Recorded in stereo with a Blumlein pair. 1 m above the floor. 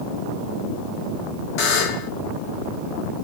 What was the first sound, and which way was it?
A buzzer, 40° left.